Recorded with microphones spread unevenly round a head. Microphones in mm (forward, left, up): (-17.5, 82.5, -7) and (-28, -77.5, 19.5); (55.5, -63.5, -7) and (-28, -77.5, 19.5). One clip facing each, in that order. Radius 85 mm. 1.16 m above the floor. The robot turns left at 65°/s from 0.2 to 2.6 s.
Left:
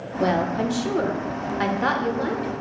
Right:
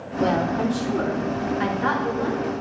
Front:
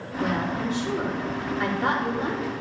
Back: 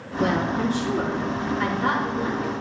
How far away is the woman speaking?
About 1.1 m.